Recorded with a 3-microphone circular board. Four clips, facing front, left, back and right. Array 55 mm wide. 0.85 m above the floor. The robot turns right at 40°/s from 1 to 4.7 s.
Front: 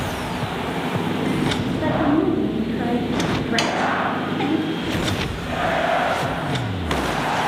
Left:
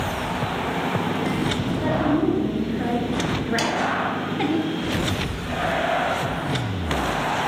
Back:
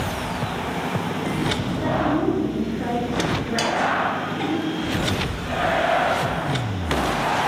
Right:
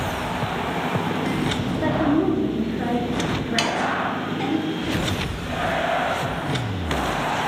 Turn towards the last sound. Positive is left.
turn(degrees=0)